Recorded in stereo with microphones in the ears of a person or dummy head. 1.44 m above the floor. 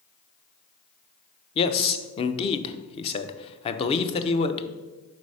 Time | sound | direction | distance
1.6 | a man speaking | 30° left (ahead or behind) | 0.6 m